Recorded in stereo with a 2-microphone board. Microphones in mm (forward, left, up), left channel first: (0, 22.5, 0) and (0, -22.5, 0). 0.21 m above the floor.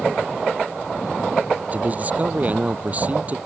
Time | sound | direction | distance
1.7 | a man speaking | 35° right (ahead or behind) | ?